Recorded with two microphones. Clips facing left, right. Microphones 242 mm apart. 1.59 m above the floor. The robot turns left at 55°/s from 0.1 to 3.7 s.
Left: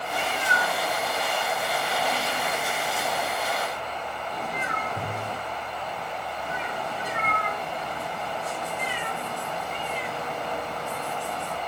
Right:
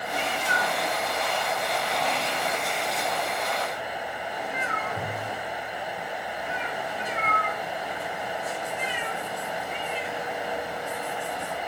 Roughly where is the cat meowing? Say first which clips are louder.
Even; centre.